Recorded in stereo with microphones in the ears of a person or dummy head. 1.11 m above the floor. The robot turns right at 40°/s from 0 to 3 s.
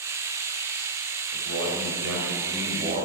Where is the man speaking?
100° right, 4.5 m; by 3.1 s 35° right, 4.5 m.